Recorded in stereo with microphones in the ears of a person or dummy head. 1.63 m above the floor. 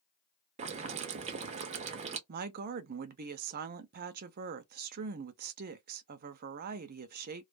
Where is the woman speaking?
50° right (ahead or behind), 0.5 m.